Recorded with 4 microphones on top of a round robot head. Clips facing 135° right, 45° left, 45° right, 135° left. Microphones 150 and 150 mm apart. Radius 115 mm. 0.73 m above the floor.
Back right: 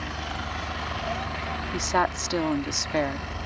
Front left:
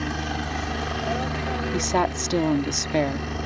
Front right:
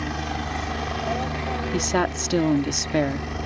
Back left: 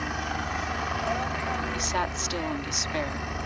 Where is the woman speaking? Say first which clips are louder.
Front left 1 dB, front right 7 dB; 20° right.